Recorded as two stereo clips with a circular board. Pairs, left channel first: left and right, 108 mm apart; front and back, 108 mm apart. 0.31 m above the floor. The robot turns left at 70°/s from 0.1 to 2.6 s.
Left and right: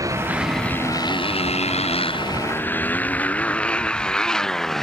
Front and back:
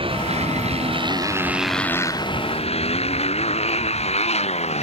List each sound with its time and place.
0.0 s a motorcycle: 150° right; by 4.8 s 5° left